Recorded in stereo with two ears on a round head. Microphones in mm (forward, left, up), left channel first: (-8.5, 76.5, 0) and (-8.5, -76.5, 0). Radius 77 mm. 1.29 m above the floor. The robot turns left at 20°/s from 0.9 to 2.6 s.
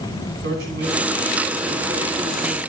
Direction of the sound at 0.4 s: 110° right.